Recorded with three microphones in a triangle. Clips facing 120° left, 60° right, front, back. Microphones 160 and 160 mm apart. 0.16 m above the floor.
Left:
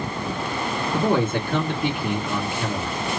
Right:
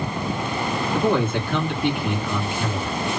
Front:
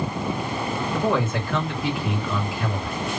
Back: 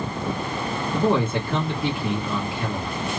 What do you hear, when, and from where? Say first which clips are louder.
0.9 s a man speaking: even, back 3 dB; 130° left, 2 m